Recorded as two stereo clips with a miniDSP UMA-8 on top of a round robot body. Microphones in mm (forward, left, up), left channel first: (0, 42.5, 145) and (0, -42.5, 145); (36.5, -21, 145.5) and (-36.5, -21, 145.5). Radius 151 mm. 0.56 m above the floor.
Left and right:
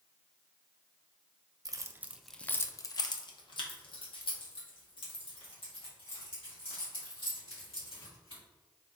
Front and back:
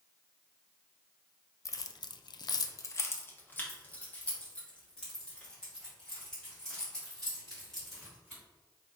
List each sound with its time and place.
1.6 s keys jangling: 45° right, 0.6 m; by 8.4 s 85° left, 3.5 m